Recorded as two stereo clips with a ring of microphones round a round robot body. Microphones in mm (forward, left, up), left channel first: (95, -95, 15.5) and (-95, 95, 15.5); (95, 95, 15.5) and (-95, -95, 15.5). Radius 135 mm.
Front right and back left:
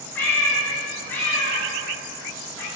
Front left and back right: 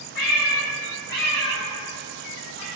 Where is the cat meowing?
40° left, 2 m.